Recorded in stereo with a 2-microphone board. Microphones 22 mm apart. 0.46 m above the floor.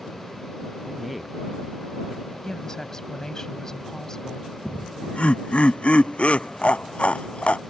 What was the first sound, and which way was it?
A man speaking, 5° right (ahead or behind).